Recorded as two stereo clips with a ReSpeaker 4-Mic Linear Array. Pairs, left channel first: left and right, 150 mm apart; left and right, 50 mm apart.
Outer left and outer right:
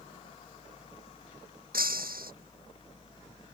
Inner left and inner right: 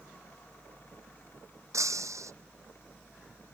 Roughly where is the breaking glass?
Right.